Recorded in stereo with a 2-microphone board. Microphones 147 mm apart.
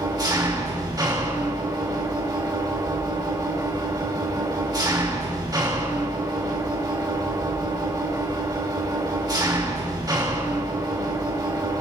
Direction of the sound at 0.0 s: 30° right (ahead or behind).